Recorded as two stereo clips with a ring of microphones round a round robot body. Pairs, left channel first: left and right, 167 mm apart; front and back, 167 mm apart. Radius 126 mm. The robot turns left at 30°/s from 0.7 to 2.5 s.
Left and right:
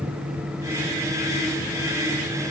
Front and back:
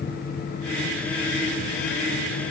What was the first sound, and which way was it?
Only background noise.